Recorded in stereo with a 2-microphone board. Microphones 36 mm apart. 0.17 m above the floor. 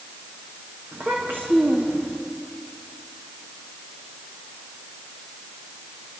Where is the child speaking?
80° right, 6.5 m.